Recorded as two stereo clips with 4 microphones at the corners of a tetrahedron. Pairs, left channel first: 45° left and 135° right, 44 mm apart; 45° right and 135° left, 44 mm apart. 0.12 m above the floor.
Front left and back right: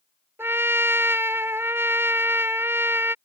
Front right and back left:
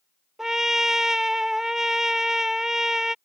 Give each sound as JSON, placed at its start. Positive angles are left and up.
{"t": 0.4, "sound": "a trumpet", "azimuth_deg": -145}